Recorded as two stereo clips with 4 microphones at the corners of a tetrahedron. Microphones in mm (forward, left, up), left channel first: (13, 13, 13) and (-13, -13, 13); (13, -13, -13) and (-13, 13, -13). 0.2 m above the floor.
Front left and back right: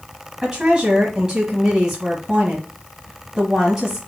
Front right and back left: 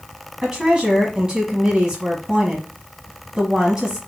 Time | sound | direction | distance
0.4 | a woman speaking | 175° left | 1.1 m